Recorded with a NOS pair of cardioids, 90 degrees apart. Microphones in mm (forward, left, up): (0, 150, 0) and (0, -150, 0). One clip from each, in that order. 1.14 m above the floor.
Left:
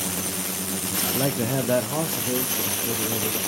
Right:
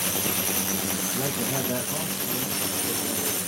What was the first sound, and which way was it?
A man speaking, 25° left.